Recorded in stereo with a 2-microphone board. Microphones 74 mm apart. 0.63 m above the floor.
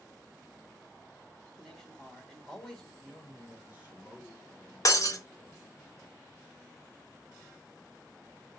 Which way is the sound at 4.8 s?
45° left (ahead or behind).